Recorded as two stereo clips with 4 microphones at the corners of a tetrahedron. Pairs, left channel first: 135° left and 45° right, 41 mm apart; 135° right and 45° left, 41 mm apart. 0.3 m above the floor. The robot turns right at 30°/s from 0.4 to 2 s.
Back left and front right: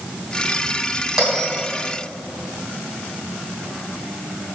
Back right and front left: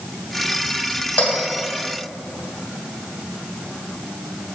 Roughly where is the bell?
Behind right.